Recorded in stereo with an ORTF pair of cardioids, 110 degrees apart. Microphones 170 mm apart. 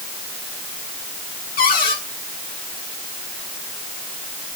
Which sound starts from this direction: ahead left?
A cupboard door, at 1.6 s.